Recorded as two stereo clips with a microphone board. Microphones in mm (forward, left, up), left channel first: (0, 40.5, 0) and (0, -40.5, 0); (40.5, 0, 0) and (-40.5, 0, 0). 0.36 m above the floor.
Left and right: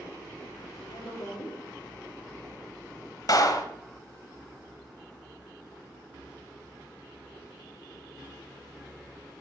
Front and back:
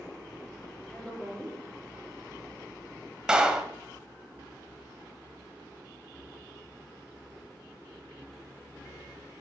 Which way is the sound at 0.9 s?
75° left.